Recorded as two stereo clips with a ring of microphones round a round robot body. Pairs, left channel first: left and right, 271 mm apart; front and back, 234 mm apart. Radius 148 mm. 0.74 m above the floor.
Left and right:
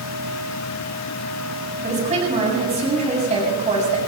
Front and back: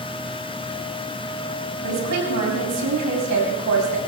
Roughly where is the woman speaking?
Behind right.